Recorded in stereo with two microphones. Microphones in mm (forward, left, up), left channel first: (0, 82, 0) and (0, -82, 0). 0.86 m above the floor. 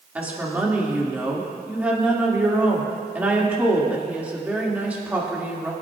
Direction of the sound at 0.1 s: 10° right (ahead or behind).